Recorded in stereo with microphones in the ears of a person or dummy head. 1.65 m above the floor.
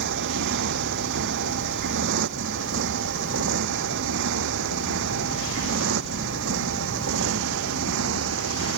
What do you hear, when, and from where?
0.0 s a motorcycle: 60° right (ahead or behind); by 8.8 s 70° right (ahead or behind)